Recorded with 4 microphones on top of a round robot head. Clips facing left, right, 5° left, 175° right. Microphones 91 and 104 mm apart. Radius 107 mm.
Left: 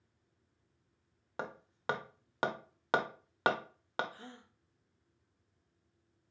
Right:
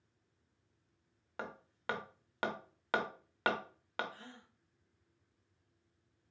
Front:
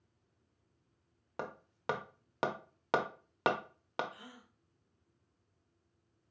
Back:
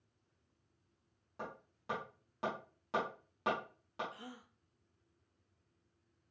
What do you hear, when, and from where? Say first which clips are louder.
1.4 s hammering: left 3 dB, front 4 dB; 20° left, 0.7 m
4.1 s a gasp: left 2 dB, back 2 dB; 150° left, 1.2 m